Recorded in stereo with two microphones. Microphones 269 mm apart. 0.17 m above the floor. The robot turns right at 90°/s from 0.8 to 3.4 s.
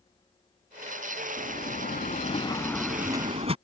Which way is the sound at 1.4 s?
45° left.